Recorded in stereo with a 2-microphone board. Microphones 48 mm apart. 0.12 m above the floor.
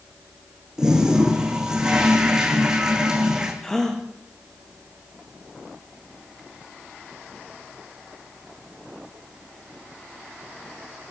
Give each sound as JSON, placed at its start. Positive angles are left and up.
{"t": 0.8, "sound": "a toilet flushing", "side_deg": -10, "distance_m": 7.5}
{"t": 3.6, "sound": "a gasp", "side_deg": 10, "distance_m": 6.0}